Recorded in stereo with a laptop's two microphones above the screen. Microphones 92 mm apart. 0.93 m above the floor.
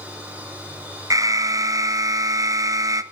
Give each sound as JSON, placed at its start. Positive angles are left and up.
{"t": 0.0, "sound": "a machine running", "side_deg": -15, "distance_m": 3.5}
{"t": 1.1, "sound": "an alarm", "side_deg": -35, "distance_m": 0.9}